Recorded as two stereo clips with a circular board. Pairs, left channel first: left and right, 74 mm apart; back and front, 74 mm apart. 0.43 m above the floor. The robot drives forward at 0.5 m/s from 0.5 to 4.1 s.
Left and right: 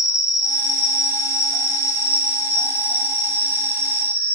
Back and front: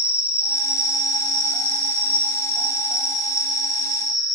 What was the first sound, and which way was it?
An insect, 65° left.